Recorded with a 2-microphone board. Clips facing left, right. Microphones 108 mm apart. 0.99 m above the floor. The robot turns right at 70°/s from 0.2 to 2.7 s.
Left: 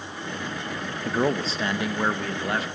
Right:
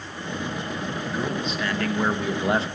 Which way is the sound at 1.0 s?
105° left.